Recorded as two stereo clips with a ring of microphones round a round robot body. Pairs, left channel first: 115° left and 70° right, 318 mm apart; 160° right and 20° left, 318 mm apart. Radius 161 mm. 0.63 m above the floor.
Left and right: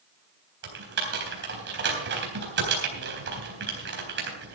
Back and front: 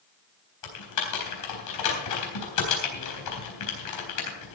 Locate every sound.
0.6 s typing on a keyboard: 125° right, 3.5 m